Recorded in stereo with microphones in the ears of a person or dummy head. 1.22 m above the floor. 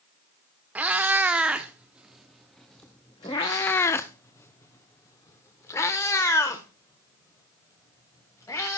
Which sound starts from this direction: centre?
A cat meowing, at 0.8 s.